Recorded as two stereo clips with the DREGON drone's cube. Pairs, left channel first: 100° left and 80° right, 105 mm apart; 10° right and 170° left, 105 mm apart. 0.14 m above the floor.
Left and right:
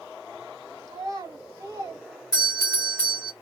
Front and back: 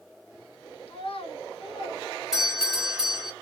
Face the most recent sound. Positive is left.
turn(degrees=90)